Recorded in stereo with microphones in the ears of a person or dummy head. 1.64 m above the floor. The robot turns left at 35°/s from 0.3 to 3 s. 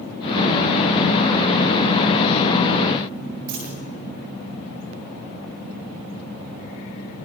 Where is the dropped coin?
60° right (ahead or behind), 8.5 m.